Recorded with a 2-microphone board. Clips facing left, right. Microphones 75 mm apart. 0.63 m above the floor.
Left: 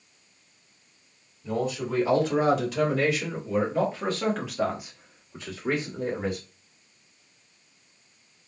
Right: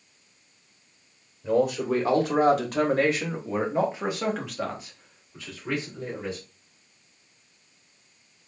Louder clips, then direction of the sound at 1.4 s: Right 5 dB; 65° right (ahead or behind).